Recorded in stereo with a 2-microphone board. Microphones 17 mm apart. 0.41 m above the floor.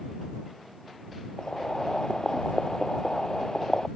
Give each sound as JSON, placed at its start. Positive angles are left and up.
{"t": 1.4, "sound": "boiling", "side_deg": 50}